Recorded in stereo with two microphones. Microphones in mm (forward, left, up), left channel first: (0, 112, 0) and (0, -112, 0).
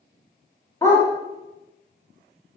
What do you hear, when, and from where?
0.8 s a dog barking: 15° left (ahead or behind), 3 m